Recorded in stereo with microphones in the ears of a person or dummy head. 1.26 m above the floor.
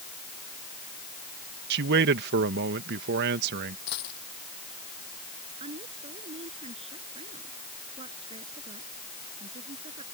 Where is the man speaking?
55° right (ahead or behind).